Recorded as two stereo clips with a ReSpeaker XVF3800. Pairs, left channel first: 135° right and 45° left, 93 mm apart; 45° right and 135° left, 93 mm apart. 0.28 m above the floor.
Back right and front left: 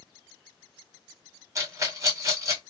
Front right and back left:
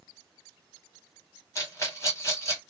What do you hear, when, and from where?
1.6 s a rattle: straight ahead, 1.6 m